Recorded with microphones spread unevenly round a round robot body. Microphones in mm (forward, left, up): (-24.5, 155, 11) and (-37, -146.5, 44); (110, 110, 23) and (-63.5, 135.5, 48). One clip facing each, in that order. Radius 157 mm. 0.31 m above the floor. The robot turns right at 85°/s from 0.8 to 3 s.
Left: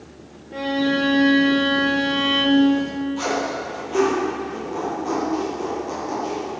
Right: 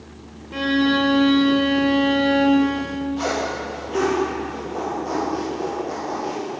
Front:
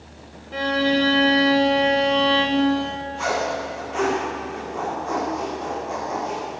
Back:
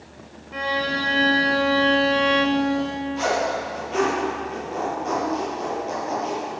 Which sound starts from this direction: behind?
A zipper, at 3.2 s.